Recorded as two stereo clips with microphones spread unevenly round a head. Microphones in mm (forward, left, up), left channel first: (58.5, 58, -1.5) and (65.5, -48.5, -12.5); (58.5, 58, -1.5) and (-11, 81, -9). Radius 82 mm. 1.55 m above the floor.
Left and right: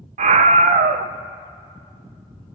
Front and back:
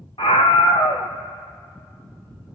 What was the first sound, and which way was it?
A scream, 80° right.